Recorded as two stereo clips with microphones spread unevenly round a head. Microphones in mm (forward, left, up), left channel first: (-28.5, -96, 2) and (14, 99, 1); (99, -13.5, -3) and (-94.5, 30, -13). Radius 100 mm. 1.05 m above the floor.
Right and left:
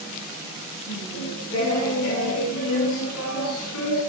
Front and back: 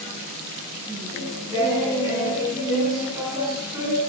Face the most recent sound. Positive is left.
turn(degrees=-120)